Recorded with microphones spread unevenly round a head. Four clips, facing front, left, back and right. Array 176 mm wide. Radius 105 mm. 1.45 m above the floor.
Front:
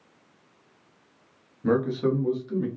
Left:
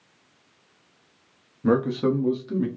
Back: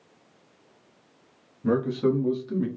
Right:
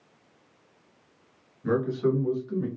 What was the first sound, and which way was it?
A man speaking, 60° left.